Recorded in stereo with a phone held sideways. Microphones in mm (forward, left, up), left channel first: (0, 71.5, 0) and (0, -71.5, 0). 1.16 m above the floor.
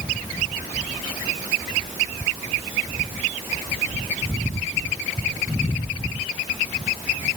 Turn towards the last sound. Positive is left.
No sound to turn to.